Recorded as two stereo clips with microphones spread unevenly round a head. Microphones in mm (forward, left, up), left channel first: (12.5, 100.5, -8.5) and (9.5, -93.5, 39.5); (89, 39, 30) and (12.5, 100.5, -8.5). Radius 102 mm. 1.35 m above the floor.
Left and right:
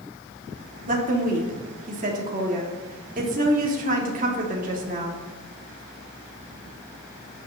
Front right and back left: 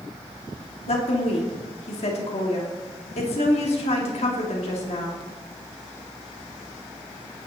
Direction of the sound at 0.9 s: 45° right.